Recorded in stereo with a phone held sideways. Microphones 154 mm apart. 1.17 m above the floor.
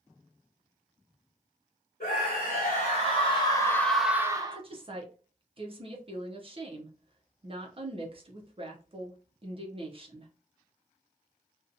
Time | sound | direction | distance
2.0 | a scream | 65° left (ahead or behind) | 1.2 m
4.5 | a woman speaking | 35° right (ahead or behind) | 0.5 m